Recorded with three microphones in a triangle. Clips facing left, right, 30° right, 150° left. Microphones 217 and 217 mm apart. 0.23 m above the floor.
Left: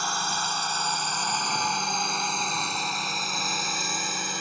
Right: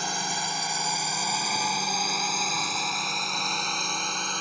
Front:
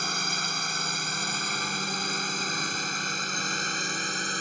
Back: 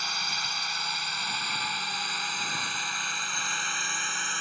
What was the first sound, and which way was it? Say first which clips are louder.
A drone: even, front 6 dB; 25° right.